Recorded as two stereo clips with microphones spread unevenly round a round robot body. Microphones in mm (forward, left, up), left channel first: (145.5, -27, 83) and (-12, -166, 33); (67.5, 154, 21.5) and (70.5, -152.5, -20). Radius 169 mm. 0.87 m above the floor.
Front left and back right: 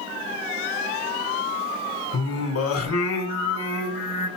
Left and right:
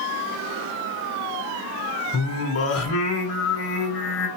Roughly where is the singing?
Ahead left.